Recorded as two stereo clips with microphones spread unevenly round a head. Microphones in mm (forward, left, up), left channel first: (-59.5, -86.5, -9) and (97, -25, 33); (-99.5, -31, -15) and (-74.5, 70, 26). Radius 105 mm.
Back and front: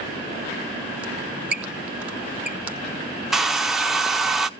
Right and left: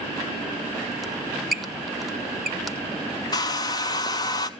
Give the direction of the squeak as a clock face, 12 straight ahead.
10 o'clock.